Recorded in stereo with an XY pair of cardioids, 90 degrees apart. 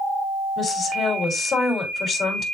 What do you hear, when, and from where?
0.6 s a woman speaking: 65° left, 3.5 m